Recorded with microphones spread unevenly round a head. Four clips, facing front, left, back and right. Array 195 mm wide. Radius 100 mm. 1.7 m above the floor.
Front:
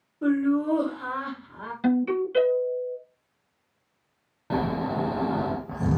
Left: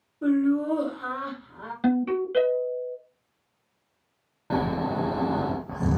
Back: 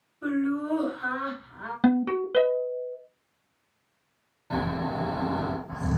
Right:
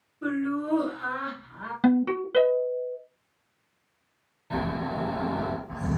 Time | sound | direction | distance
0.2 | laughter | 15° left | 1.5 m
1.8 | a ringtone | 155° right | 1.0 m
4.5 | snoring | 55° left | 0.6 m